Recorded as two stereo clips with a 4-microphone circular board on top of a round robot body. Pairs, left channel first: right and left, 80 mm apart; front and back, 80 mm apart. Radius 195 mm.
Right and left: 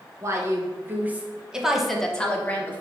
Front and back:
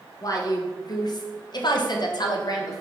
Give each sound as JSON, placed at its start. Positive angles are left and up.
{"t": 0.2, "sound": "a woman speaking", "azimuth_deg": 40, "distance_m": 1.7}